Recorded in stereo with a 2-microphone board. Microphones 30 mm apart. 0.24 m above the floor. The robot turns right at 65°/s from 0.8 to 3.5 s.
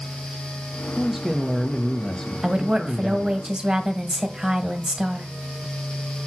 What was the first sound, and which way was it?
A man speaking, 10° right (ahead or behind).